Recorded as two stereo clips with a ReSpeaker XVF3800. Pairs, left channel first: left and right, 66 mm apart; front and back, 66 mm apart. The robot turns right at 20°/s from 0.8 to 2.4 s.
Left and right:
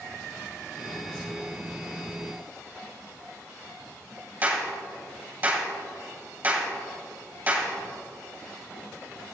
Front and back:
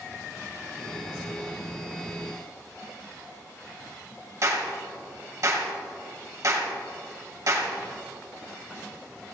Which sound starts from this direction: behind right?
A clap, at 4.4 s.